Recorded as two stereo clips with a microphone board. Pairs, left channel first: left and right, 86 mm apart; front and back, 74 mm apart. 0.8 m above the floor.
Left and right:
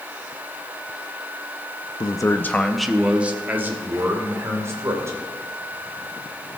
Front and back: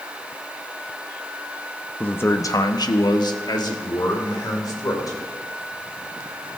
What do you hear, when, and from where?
2.0 s a man speaking: 65° left, 0.6 m; by 5.2 s 35° right, 2.5 m